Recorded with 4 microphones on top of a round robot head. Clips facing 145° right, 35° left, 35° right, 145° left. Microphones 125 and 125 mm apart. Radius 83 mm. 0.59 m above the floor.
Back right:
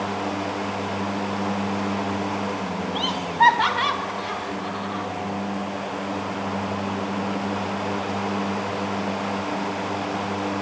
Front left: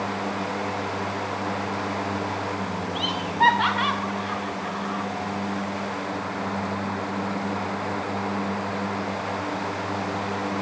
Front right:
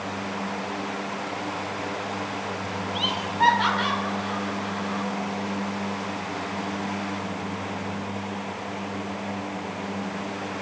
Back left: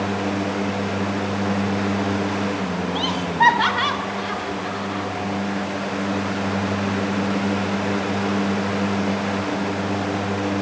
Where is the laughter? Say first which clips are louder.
Back right 3 dB, back left 4 dB; 175° right, 1.7 m; by 5.1 s 150° left, 3 m.